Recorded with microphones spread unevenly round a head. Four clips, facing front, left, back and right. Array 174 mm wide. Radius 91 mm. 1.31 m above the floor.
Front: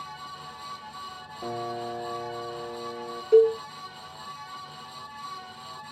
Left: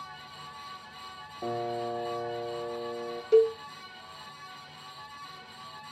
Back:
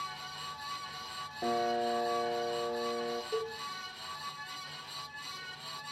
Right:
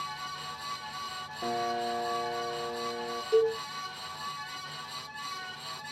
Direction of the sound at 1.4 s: 150° left.